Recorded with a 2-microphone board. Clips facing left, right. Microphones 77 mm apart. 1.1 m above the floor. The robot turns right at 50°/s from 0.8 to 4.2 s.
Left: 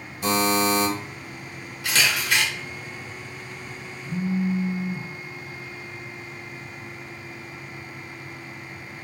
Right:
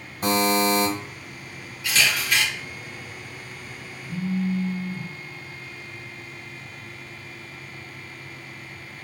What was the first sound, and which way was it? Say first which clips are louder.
A buzzer: right 1 dB; 50° right (ahead or behind).